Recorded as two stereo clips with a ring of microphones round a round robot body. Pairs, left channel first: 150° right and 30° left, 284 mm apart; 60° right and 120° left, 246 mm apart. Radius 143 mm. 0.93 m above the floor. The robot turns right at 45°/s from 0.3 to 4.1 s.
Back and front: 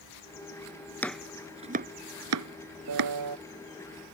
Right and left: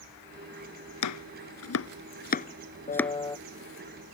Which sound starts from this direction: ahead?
A piano, at 2.9 s.